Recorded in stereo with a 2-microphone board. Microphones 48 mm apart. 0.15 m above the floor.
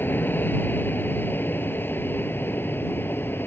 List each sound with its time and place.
0.0 s an aircraft: 45° left (ahead or behind); by 3.5 s 50° left (ahead or behind)